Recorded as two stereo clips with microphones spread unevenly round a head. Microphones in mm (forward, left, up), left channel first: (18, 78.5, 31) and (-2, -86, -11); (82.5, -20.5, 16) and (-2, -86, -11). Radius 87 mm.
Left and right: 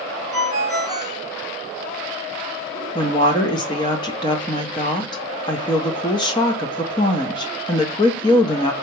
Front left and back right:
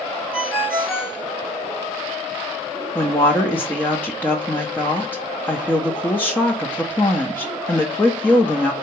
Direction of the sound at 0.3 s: 95° left.